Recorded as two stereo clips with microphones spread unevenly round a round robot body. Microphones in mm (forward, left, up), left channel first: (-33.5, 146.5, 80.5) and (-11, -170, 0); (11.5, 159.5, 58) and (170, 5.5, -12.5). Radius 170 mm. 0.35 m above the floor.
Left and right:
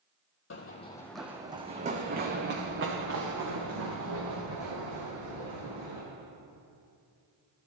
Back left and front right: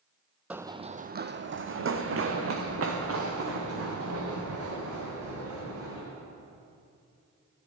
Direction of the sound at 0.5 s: 45° left.